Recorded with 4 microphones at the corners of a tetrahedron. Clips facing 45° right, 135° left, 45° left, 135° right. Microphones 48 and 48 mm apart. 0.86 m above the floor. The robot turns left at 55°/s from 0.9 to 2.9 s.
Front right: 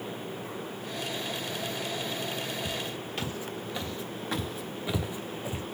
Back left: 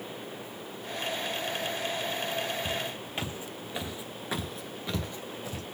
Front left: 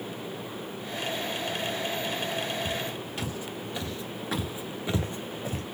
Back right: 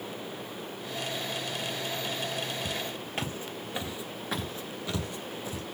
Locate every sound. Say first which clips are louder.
2.6 s footsteps: back left 1 dB, front left 3 dB; 150° right, 1.5 m; by 5.6 s 25° left, 1.2 m